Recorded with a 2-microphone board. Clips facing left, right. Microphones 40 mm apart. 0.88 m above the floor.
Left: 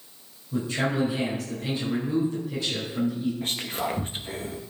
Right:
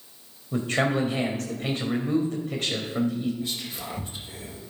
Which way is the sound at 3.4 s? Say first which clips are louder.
Left 4 dB; 45° left (ahead or behind).